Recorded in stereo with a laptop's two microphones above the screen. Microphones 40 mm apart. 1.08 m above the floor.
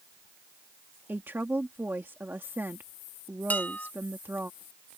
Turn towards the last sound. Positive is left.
turn(degrees=45)  # may be behind; listen again after turning